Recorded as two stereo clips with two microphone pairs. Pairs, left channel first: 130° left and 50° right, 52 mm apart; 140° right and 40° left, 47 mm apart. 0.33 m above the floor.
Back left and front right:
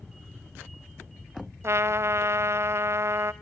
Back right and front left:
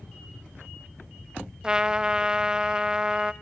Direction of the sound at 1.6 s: 30° right.